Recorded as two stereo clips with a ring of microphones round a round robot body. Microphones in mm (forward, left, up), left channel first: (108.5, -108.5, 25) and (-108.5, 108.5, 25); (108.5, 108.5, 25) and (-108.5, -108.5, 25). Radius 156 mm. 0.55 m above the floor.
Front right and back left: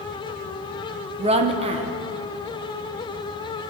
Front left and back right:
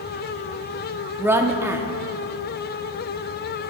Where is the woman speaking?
155° left, 0.6 m.